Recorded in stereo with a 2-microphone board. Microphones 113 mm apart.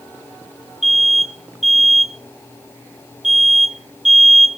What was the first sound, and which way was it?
An alarm, 5° right (ahead or behind).